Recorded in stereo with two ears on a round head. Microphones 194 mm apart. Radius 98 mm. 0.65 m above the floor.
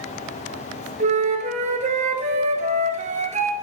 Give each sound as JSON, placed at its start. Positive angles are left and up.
{"t": 1.0, "sound": "a flute", "side_deg": -35, "distance_m": 1.8}